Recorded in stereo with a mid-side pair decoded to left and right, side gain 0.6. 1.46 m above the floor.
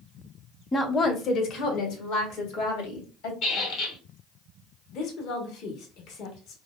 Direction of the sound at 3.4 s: 60° left.